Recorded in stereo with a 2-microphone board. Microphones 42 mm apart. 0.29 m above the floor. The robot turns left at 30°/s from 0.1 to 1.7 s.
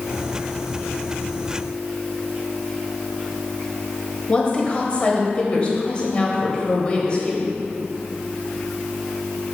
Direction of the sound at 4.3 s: 30° left (ahead or behind).